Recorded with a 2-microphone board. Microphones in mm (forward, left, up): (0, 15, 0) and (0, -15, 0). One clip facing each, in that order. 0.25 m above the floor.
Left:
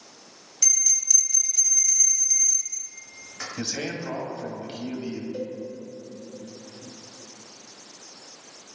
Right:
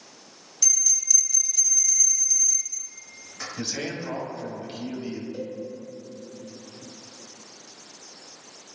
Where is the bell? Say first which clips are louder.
Even; 30° left (ahead or behind), 1.1 m.